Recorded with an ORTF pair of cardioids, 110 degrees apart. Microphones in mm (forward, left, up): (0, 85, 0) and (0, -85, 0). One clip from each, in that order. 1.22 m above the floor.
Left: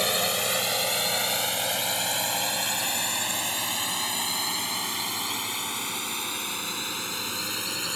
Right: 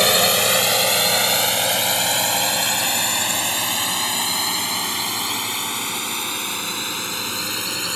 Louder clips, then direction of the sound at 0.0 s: Right 9 dB; 55° right.